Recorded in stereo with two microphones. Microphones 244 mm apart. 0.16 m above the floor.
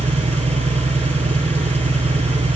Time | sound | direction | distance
0.0 | an engine running | 25° right (ahead or behind) | 0.8 m